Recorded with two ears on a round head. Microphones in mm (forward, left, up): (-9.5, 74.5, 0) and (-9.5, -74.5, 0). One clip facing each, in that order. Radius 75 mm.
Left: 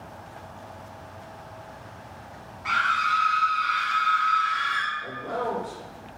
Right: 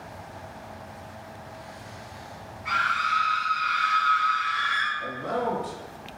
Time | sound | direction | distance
2.6 | a scream | 70° left (ahead or behind) | 0.7 m
5.0 | a man speaking | 85° right | 1.3 m